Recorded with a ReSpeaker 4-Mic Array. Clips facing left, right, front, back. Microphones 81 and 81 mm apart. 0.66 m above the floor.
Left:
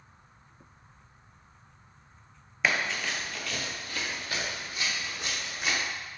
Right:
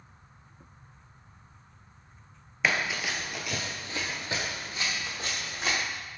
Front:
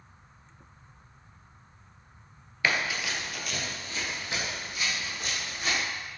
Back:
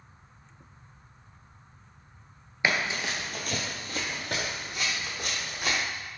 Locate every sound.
2.6 s running footsteps: straight behind, 0.6 m; by 5.8 s 150° right, 1.9 m